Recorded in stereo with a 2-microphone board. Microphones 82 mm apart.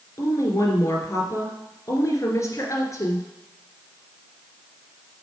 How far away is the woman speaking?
About 2 m.